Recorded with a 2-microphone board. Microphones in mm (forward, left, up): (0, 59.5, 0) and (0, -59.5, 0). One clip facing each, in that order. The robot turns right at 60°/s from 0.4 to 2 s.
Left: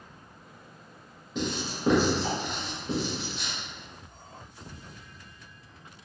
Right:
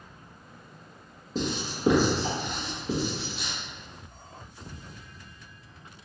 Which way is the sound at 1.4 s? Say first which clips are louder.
Right 1 dB; 35° right (ahead or behind).